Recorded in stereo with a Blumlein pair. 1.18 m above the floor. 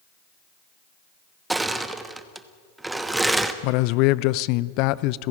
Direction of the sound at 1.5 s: 5° right.